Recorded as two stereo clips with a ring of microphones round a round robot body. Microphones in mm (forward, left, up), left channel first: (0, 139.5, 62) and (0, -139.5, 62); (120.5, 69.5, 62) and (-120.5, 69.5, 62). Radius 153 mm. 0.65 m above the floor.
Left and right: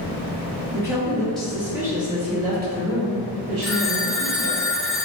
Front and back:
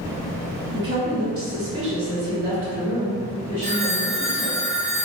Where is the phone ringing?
Straight behind, 0.6 m.